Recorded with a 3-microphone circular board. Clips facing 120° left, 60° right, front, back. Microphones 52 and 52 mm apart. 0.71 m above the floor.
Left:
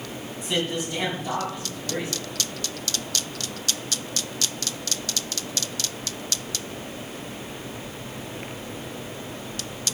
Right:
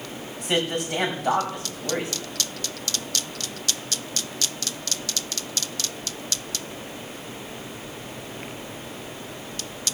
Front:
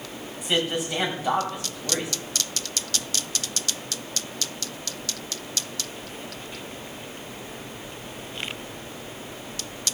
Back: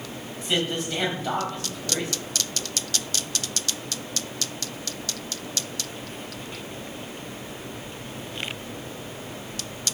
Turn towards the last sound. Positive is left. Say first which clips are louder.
# right 2 dB, front 1 dB
turn(degrees=-75)